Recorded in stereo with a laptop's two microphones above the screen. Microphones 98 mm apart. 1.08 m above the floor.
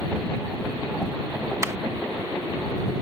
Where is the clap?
30° right (ahead or behind).